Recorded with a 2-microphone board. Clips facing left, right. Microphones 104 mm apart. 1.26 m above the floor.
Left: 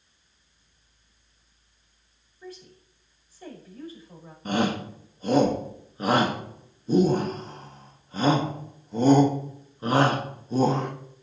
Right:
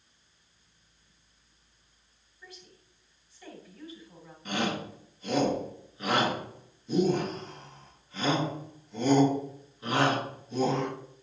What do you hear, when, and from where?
2.4 s a woman speaking: 40° left (ahead or behind), 5.5 m
4.5 s a shout: 40° left (ahead or behind), 1.7 m